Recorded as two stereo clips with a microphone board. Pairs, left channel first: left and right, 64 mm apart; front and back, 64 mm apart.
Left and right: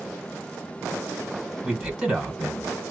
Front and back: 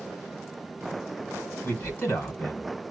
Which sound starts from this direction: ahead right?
A man speaking, at 1.6 s.